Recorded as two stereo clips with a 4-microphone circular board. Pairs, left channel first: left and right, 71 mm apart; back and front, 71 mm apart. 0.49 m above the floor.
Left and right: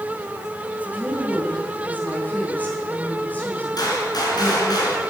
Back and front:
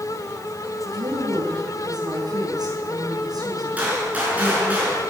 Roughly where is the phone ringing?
No phone ringing in this recording.